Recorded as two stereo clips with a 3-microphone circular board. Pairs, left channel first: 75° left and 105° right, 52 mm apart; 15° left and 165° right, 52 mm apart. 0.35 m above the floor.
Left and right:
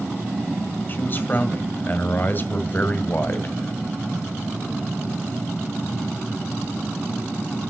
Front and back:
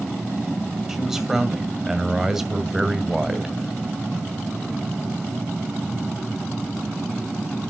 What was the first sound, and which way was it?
A man speaking, 115° left.